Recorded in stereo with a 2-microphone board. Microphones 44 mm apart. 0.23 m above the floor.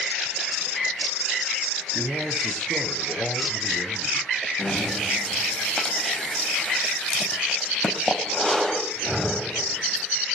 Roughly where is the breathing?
Left.